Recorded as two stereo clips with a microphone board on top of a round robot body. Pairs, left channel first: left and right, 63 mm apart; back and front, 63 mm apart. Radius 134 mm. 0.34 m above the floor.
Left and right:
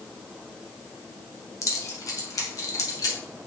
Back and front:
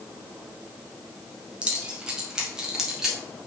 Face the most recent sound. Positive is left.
turn(degrees=80)